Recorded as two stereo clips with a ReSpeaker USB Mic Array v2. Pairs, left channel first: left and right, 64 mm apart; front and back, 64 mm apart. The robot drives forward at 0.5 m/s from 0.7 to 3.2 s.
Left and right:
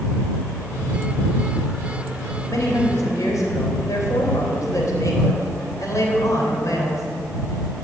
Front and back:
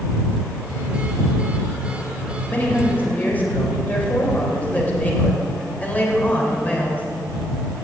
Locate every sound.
2.5 s a woman speaking: 60° left, 3.5 m; by 7.0 s 65° left, 3 m